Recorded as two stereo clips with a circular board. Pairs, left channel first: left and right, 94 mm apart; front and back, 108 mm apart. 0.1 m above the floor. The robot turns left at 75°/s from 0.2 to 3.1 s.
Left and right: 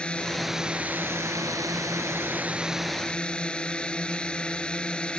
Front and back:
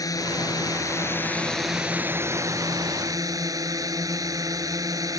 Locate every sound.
0.0 s a drone: 20° left; by 5.2 s 160° left